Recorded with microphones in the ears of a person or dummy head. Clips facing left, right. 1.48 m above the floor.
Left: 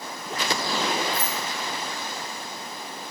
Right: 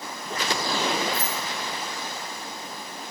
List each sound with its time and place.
1.1 s keys jangling: 45° left (ahead or behind), 1.3 m